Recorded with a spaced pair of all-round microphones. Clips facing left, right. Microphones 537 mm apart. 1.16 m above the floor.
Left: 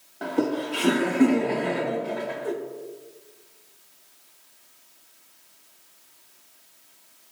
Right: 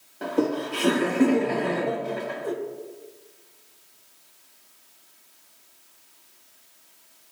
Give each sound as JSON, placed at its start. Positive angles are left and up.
{"t": 0.2, "sound": "laughter", "side_deg": 5, "distance_m": 0.8}